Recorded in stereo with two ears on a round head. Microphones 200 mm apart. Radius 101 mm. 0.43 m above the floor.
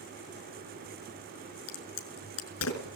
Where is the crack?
70° left (ahead or behind), 5.5 m.